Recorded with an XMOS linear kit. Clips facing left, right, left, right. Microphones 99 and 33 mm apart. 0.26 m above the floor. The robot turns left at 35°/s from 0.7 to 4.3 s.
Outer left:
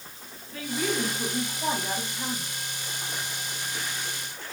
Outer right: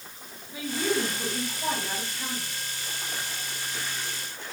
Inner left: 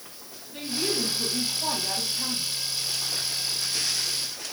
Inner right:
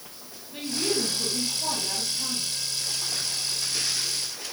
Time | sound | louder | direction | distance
0.5 | a woman speaking | outer right 1 dB, inner right 1 dB | 165° right | 2 m